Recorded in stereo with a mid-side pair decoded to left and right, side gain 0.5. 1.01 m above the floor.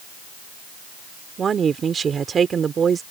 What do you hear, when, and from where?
1.4 s a woman speaking: 40° right